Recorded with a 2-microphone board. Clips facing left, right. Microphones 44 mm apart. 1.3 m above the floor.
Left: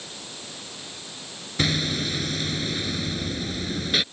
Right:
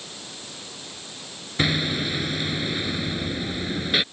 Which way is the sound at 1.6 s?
15° right (ahead or behind).